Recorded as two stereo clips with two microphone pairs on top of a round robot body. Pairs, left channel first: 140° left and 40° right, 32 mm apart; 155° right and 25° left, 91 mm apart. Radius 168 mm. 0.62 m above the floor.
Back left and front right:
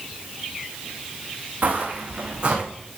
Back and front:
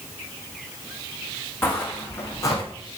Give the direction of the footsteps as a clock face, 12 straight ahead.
3 o'clock.